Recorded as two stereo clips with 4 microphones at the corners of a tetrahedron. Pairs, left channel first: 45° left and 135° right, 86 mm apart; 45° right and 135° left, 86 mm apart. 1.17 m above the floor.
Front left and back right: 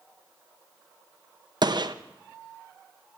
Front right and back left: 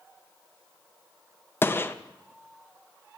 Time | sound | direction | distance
1.6 | a gunshot | 110° right | 0.5 m